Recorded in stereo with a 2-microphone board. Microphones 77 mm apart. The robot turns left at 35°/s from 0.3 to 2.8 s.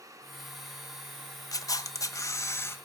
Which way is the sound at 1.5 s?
90° left.